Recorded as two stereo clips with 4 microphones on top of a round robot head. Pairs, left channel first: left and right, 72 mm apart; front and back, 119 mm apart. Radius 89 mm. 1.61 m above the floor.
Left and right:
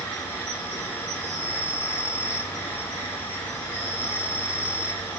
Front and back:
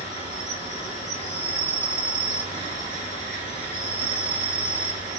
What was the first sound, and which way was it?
An insect, 30° left.